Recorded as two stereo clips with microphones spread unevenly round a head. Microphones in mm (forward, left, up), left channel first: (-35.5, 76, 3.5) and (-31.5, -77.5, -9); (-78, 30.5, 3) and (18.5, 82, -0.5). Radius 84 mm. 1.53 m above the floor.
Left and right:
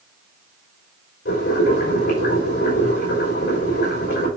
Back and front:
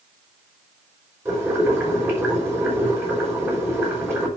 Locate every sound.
1.2 s boiling: 95° left, 5.5 m